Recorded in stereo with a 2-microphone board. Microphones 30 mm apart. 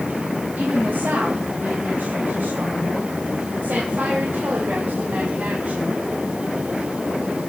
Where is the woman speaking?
85° right, 7 m; by 6.0 s 55° right (ahead or behind), 6 m.